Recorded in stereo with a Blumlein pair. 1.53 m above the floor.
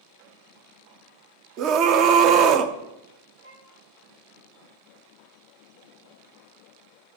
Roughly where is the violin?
Ahead right.